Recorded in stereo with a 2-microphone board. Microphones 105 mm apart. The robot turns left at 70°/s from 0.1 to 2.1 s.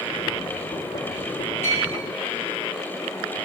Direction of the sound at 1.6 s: 25° left (ahead or behind).